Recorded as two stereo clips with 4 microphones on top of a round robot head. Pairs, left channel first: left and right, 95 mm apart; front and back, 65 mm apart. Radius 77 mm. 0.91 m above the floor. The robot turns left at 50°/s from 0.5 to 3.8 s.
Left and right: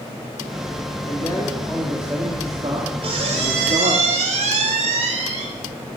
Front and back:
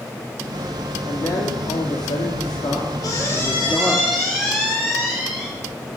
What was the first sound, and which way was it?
A man speaking, 35° left.